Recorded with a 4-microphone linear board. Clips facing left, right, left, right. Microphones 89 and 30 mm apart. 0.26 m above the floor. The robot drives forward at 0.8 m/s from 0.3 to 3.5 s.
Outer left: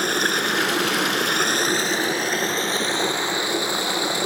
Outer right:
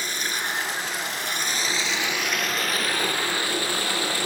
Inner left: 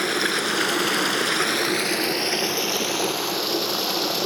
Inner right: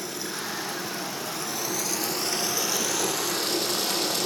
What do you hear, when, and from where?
0.0 s running water: 60° left (ahead or behind), 0.9 m; by 4.2 s 20° left (ahead or behind), 2 m